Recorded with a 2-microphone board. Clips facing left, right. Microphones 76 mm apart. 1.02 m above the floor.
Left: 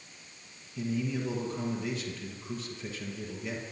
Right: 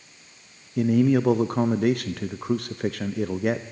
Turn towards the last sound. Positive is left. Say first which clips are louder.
# right 13 dB
turn(degrees=-60)  # may be behind; listen again after turning